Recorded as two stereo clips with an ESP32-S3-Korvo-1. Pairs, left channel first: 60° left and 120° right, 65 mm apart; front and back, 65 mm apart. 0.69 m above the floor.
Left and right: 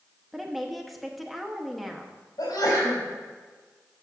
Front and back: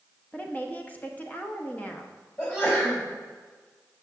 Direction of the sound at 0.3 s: 30° right.